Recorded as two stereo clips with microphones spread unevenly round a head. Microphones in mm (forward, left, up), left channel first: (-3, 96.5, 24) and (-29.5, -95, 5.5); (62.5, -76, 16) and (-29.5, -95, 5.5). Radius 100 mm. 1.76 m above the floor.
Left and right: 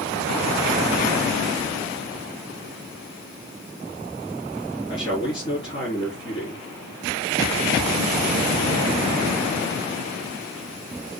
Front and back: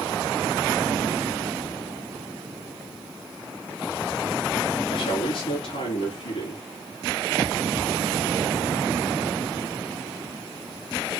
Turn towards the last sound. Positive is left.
turn(degrees=15)